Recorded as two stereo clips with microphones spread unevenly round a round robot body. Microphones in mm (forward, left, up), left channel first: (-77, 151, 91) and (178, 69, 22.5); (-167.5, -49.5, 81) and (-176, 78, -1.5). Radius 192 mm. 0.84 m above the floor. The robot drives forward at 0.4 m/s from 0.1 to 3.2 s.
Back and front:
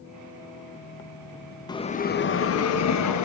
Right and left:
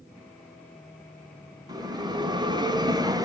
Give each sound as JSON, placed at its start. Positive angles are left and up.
{"t": 1.7, "sound": "a bell", "azimuth_deg": 75, "distance_m": 0.6}